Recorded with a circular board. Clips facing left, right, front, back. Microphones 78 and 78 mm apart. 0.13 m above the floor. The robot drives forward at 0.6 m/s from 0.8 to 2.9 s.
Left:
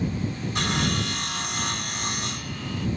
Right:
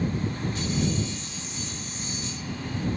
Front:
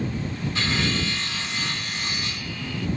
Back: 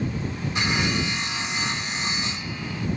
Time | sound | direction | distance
0.6 | sawing | 110° left | ?